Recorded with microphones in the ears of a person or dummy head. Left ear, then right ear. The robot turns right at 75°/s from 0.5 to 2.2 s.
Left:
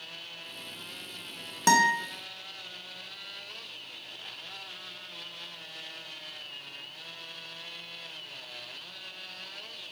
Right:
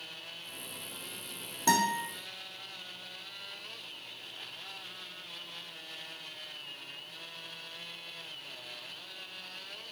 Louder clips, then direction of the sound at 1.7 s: Left 5 dB; 50° left (ahead or behind).